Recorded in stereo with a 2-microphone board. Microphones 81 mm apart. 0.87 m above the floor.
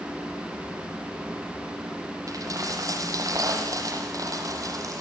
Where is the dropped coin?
45° right (ahead or behind), 6.5 m.